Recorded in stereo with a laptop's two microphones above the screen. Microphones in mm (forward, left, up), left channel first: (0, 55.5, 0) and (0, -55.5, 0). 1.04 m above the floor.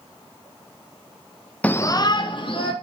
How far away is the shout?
About 0.6 m.